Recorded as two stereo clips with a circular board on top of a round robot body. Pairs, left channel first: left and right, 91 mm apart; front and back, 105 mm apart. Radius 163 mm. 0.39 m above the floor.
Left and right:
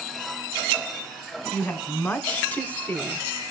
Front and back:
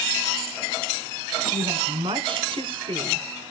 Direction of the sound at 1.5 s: 160° left.